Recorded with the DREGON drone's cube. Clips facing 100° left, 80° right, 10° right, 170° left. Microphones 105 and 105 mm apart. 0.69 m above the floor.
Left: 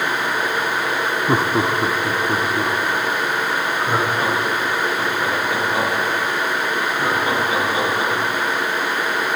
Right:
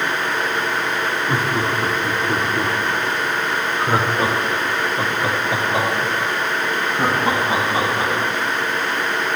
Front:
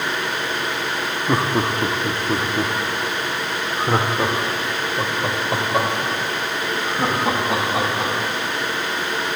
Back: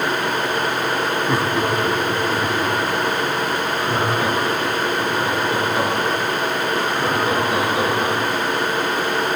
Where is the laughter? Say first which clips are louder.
Left 5 dB, front 3 dB; 55° left, 0.9 m; by 8.1 s 25° right, 4 m.